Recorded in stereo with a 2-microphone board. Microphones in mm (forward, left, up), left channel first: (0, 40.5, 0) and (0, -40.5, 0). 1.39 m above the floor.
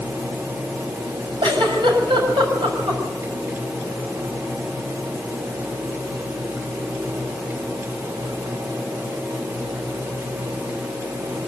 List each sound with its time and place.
1.4 s a giggle: 80° right, 6 m